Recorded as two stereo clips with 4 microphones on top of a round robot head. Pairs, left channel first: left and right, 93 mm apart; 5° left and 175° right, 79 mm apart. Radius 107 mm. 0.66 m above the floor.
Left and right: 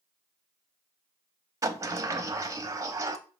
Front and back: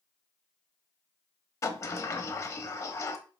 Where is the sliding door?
40° right, 1.0 m.